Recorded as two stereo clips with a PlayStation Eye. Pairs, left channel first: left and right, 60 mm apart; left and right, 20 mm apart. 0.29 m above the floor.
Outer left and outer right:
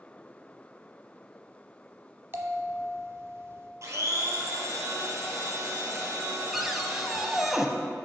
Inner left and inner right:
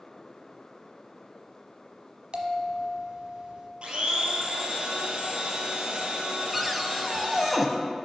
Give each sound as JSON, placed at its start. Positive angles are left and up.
{"t": 2.3, "sound": "a bell", "side_deg": -45, "distance_m": 0.9}
{"t": 3.8, "sound": "a blender", "side_deg": -55, "distance_m": 1.9}
{"t": 6.5, "sound": "a cupboard door", "side_deg": 0, "distance_m": 0.6}